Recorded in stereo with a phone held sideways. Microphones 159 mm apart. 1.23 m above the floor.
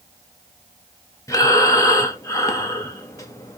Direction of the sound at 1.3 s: 20° left (ahead or behind).